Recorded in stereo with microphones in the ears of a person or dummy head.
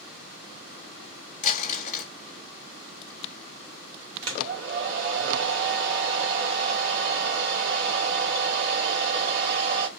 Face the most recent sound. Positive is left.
turn(degrees=-60)  # may be behind; listen again after turning